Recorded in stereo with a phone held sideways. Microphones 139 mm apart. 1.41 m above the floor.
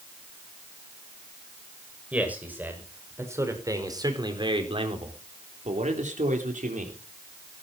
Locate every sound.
2.1 s a man speaking: 10° right (ahead or behind), 6.5 m; by 7.0 s 85° right, 4 m